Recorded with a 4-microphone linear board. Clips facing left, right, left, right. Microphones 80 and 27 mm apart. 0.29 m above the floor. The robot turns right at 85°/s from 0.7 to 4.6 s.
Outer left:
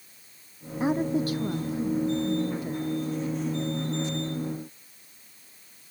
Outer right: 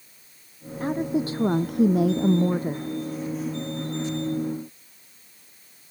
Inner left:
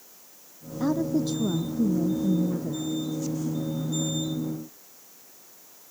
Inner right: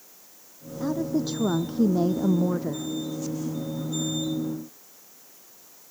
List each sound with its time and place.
0.8 s a woman speaking: 165° left; by 2.9 s 20° right